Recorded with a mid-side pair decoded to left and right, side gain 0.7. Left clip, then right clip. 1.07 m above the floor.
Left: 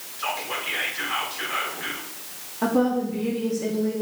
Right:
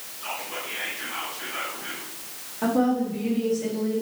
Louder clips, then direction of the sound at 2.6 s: Left 1 dB; 15° left.